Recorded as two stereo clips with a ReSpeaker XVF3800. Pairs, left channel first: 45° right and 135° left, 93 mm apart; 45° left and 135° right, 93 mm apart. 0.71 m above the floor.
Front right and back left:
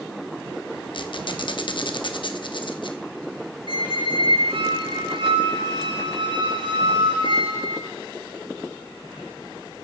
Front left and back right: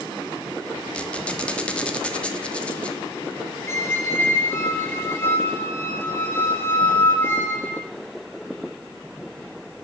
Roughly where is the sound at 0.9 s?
Ahead right.